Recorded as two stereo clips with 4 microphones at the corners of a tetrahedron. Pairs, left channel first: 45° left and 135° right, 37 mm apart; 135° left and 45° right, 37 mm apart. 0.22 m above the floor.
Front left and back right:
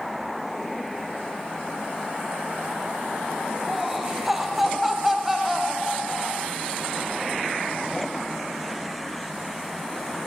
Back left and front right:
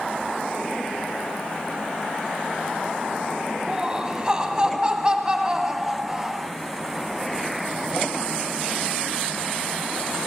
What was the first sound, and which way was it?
Laughter, 60° right.